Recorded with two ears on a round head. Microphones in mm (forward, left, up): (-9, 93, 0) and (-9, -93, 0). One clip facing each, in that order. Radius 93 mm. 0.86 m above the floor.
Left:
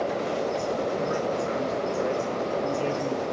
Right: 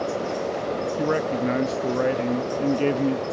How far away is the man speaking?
About 0.8 m.